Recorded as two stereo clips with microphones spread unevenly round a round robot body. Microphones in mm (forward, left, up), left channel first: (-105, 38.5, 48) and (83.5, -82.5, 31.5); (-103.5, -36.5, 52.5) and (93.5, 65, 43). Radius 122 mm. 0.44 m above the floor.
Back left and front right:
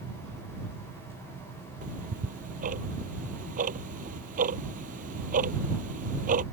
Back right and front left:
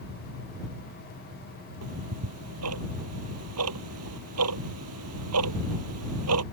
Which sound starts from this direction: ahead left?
Ticking, at 1.8 s.